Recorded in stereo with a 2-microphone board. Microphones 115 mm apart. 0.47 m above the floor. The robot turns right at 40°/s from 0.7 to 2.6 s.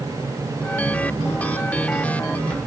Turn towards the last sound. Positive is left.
No sound to turn to.